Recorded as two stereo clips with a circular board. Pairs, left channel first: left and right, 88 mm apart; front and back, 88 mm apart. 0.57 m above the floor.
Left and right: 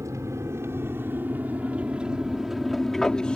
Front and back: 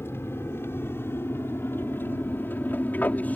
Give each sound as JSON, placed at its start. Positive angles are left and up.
{"t": 0.0, "sound": "an aircraft", "azimuth_deg": -55}